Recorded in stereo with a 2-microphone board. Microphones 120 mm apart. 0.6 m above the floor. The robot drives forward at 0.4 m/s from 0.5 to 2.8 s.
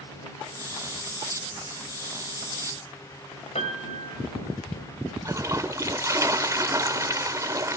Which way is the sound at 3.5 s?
60° left (ahead or behind).